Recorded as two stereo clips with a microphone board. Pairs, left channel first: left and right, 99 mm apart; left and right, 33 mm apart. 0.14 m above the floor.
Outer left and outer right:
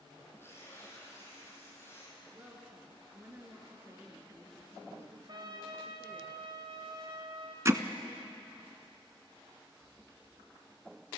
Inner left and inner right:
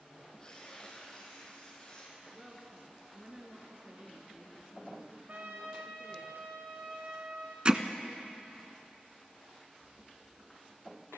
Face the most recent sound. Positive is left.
turn(degrees=-30)  # may be behind; listen again after turning